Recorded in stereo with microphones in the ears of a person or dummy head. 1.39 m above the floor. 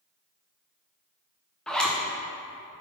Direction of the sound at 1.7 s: 5° left (ahead or behind).